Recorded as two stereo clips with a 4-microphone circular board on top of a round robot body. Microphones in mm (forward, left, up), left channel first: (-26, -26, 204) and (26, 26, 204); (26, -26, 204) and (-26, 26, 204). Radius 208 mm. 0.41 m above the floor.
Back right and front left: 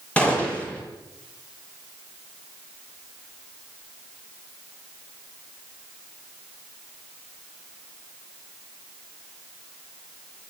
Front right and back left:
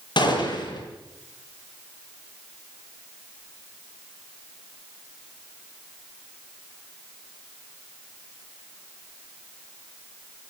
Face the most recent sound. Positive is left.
turn(degrees=-60)